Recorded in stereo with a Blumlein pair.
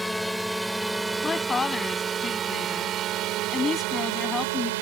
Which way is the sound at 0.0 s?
Straight ahead.